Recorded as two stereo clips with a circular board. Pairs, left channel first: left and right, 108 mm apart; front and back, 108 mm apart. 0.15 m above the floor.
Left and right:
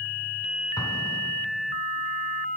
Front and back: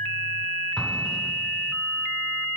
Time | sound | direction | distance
0.8 | an explosion | 85° left | 1.0 m